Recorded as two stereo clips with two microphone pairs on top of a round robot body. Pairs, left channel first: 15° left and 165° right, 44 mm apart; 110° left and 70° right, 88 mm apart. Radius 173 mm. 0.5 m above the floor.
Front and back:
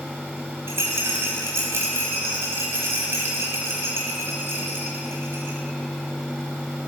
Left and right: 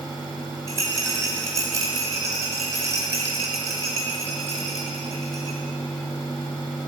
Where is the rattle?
125° right, 0.7 m.